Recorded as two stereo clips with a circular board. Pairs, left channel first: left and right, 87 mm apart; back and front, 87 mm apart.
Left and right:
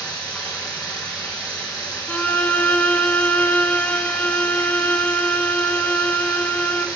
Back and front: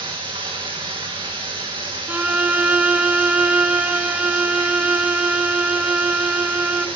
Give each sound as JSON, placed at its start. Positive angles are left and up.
{"t": 0.0, "sound": "running water", "azimuth_deg": 10, "distance_m": 2.5}
{"t": 2.1, "sound": "a violin", "azimuth_deg": 50, "distance_m": 0.7}